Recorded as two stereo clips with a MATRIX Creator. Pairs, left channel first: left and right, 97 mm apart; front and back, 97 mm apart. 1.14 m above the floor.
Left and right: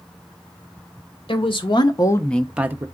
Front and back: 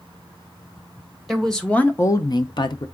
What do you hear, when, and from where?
1.3 s a woman speaking: 90° left, 1.0 m; by 2.9 s 30° right, 0.7 m